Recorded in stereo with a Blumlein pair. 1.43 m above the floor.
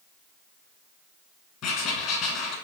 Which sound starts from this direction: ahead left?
Writing, at 1.6 s.